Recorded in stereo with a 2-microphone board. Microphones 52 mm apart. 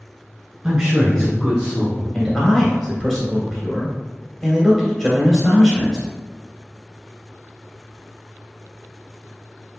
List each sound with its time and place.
0.6 s a man speaking: 10° right (ahead or behind), 1.2 m; by 2.0 s 35° left (ahead or behind), 1.7 m
2.1 s a man speaking: centre (ahead or behind), 1.3 m